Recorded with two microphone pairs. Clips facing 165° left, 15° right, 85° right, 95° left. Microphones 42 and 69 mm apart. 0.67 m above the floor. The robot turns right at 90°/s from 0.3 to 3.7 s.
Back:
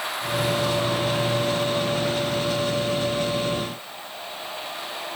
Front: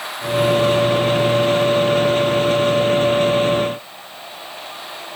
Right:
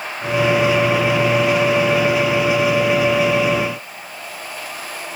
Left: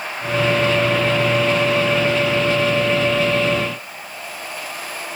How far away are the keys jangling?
No keys jangling in this recording.